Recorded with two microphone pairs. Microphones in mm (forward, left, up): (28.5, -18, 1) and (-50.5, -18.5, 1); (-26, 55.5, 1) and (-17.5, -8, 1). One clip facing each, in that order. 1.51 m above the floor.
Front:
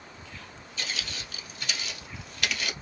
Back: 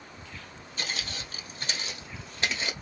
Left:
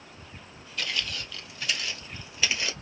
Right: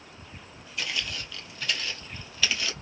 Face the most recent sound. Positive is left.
turn(degrees=140)